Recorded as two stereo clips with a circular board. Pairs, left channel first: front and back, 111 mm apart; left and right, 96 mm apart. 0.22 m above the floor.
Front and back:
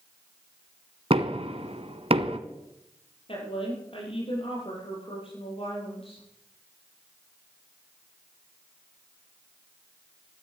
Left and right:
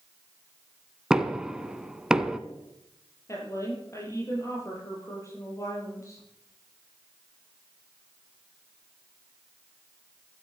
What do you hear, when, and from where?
1.1 s knocking: 170° right, 1.1 m
3.3 s a woman speaking: 35° left, 7.5 m